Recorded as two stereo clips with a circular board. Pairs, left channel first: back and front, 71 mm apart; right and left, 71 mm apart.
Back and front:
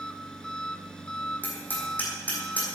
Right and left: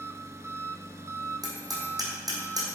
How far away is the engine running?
About 0.8 m.